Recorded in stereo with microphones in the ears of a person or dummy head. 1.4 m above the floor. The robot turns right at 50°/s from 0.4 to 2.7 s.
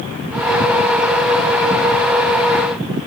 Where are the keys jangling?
I don't hear keys jangling.